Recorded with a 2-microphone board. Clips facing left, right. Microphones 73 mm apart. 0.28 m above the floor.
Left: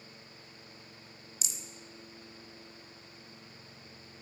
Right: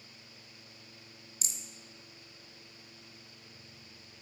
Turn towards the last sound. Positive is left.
turn(degrees=-40)  # may be behind; listen again after turning